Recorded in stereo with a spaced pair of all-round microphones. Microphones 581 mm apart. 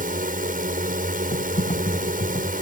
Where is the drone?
15° right (ahead or behind).